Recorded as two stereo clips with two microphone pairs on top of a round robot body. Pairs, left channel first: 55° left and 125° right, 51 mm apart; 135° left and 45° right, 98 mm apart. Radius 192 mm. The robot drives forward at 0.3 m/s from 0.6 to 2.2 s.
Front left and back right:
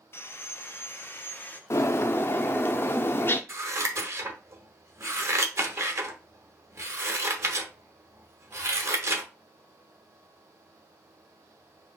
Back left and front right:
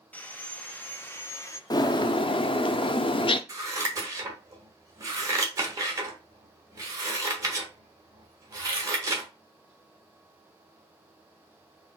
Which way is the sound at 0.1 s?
75° left.